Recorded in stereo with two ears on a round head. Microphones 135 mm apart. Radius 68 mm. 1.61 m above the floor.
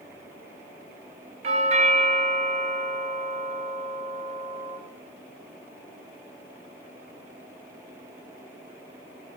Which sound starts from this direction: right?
A doorbell, at 1.4 s.